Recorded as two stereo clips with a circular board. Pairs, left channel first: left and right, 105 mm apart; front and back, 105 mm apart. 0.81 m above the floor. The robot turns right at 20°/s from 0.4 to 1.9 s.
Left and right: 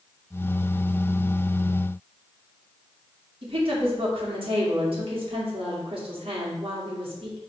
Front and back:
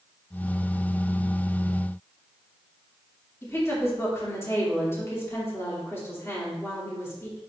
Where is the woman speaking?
65° right, 2.5 m.